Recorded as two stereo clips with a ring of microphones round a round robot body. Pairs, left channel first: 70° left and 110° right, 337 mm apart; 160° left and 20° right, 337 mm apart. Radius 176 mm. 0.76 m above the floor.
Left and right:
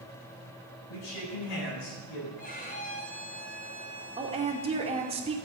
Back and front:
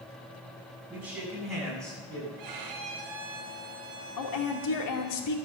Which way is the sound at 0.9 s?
65° left.